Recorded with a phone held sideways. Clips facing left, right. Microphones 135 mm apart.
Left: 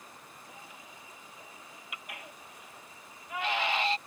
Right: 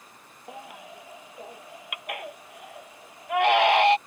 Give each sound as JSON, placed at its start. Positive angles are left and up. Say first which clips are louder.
{"t": 0.5, "sound": "a baby crying", "louder": "right 13 dB", "side_deg": -65}